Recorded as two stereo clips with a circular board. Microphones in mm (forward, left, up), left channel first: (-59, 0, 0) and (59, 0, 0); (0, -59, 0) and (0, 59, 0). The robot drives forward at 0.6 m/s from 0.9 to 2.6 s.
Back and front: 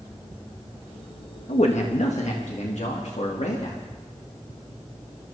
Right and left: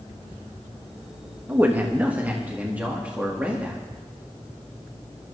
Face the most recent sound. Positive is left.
turn(degrees=170)